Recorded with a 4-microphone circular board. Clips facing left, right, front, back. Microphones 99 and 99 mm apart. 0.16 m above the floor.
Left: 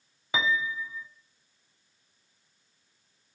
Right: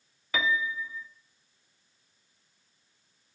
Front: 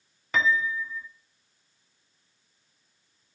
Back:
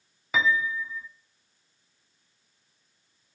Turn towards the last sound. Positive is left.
turn(degrees=105)